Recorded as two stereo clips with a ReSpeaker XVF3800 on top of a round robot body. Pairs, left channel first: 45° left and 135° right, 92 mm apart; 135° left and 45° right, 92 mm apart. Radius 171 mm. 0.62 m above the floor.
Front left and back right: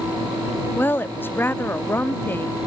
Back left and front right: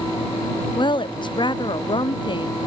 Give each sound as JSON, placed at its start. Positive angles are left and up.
{"t": 0.8, "sound": "a woman speaking", "azimuth_deg": 110}